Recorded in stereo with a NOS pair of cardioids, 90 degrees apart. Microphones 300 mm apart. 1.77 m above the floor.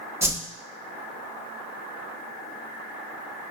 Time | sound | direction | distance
0.2 | a whoosh | 10° right | 0.8 m